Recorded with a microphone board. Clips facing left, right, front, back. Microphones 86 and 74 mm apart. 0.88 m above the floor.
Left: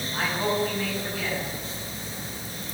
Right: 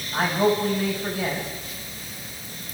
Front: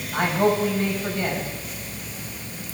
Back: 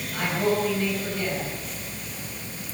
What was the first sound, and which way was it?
A man speaking, 55° right.